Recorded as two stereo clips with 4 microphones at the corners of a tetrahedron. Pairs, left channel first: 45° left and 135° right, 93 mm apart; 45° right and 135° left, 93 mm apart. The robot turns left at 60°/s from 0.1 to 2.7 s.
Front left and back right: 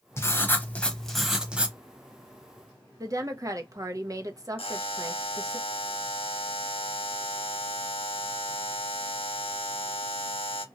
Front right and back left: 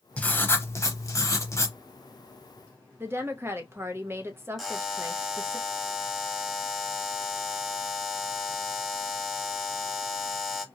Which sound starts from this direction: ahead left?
A buzzer, at 4.6 s.